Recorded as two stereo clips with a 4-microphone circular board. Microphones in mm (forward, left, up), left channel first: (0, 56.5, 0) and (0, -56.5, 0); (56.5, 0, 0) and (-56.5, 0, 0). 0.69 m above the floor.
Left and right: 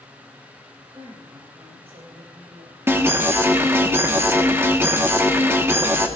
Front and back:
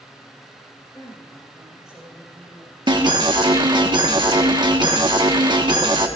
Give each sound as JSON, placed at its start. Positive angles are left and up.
{"t": 0.9, "sound": "a woman speaking", "azimuth_deg": -45, "distance_m": 4.0}
{"t": 2.9, "sound": "an alarm", "azimuth_deg": -155, "distance_m": 1.2}